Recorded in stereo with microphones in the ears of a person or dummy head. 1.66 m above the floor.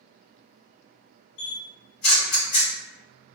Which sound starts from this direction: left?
A camera shutter, at 1.4 s.